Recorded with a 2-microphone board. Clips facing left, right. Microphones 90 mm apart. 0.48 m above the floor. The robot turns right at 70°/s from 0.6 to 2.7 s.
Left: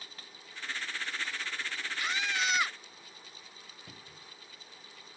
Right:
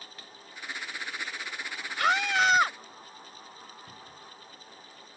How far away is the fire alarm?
I don't hear a fire alarm.